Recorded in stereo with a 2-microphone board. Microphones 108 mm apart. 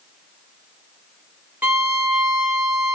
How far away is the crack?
I don't hear a crack.